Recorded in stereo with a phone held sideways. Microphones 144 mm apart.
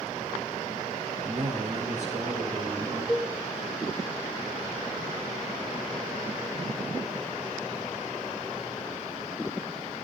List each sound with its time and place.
1.2 s a man speaking: 60° right (ahead or behind), 6.5 m
3.1 s a cowbell: 10° left (ahead or behind), 1.3 m